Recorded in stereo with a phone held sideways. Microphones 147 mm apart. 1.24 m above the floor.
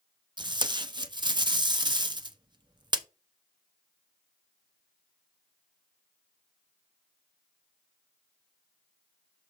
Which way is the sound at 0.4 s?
30° right (ahead or behind).